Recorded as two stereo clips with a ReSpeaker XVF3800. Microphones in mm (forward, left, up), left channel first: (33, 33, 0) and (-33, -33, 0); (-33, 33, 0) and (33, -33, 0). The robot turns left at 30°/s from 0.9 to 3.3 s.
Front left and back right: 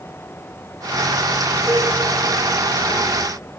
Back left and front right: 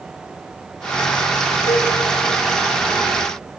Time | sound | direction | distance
1.7 | a cowbell | 155° left | 5.5 m